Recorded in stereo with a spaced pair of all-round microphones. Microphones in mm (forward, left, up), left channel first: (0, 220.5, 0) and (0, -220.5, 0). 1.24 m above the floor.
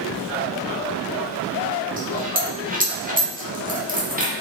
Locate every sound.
2.0 s a dropped coin: 20° right (ahead or behind), 0.6 m